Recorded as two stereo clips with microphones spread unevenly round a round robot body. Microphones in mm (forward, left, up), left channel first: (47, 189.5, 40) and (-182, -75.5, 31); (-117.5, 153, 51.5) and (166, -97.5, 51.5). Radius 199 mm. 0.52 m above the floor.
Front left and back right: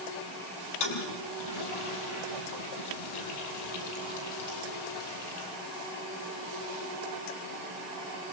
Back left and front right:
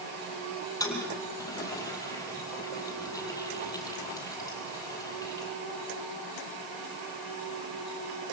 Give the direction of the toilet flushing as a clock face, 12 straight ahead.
10 o'clock.